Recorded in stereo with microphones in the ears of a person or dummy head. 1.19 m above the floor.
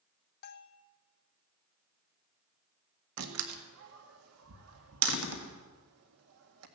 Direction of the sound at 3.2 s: 85° right.